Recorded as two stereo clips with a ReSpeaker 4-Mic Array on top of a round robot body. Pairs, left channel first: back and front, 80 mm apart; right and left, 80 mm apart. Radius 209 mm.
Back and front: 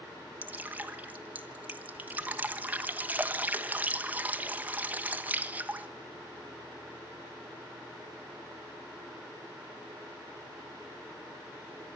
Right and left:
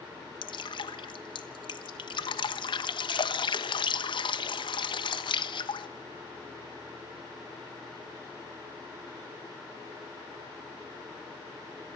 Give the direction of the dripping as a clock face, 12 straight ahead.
2 o'clock.